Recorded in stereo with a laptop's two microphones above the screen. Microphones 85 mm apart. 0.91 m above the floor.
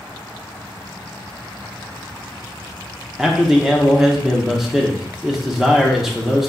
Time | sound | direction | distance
3.2 | a man speaking | 5° right (ahead or behind) | 0.7 m